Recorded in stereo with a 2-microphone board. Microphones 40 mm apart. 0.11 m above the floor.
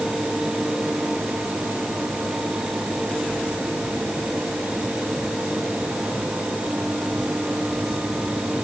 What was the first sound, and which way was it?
Only background noise.